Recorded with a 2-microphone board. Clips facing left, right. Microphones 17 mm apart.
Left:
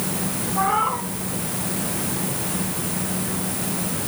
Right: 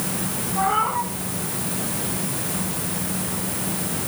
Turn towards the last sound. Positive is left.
turn(degrees=15)  # may be behind; listen again after turning